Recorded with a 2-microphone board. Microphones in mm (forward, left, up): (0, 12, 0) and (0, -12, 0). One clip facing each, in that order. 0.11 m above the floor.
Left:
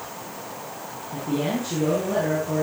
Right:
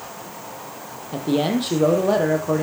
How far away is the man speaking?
About 3 m.